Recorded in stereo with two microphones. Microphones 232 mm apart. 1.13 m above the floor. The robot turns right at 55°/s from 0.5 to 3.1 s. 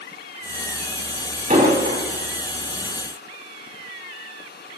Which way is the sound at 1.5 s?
35° right (ahead or behind).